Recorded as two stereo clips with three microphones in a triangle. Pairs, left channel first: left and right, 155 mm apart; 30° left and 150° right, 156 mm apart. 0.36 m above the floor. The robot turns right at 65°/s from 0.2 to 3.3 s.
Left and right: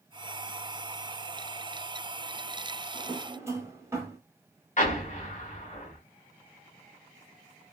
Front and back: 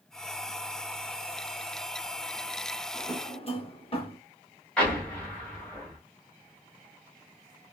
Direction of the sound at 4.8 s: 110° left.